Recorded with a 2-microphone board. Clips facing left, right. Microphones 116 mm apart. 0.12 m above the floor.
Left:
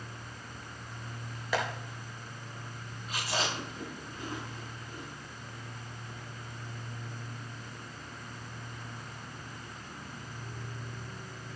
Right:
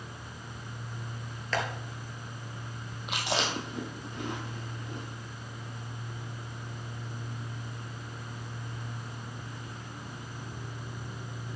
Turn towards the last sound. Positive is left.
turn(degrees=-75)  # may be behind; listen again after turning